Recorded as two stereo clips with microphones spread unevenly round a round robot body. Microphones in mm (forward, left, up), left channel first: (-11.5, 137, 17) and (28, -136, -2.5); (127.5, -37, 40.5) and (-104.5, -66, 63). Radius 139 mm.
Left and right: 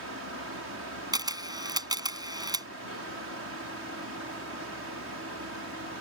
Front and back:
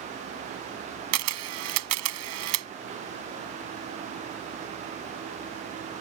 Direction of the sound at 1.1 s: 160° right.